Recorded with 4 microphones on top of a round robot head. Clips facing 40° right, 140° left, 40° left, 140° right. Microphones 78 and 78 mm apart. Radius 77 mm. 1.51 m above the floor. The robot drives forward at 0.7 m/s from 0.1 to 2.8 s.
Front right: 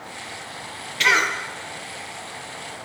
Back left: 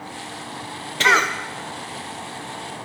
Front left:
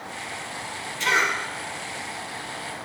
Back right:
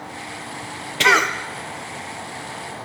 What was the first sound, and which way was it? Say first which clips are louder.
A cough: back left 3 dB, back right 6 dB; 165° right.